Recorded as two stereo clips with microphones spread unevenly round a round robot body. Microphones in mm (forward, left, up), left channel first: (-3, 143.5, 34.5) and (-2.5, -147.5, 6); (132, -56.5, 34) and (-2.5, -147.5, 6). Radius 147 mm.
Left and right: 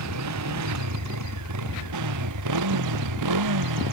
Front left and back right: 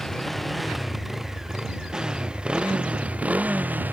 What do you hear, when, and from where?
0.0 s a motorcycle: 55° right; by 3.9 s 65° right